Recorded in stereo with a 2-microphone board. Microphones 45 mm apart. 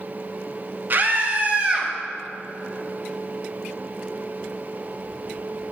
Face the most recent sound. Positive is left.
turn(degrees=-20)  # may be behind; listen again after turning